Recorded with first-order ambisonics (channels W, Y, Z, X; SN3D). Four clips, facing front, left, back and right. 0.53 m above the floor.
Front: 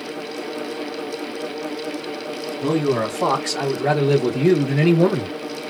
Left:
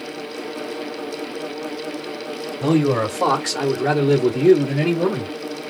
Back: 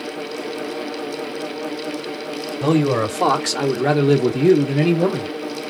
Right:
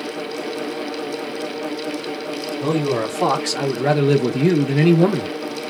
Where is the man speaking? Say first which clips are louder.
Left 3 dB, back 3 dB; 165° left, 1.3 m; by 5.3 s 75° right, 1.1 m.